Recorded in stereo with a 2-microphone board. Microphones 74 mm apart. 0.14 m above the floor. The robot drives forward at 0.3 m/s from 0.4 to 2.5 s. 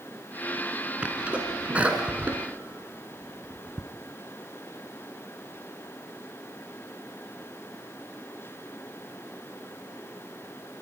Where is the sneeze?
20° right (ahead or behind), 1.7 m.